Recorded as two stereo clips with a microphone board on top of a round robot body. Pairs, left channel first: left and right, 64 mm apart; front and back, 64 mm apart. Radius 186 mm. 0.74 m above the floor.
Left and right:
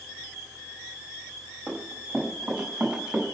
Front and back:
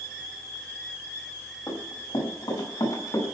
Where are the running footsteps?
10° right, 6 m; by 3.2 s 20° right, 5 m.